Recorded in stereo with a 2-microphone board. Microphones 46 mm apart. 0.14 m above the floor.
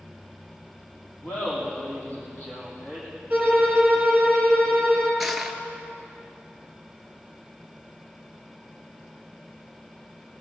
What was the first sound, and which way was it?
Laughter, 40° left (ahead or behind).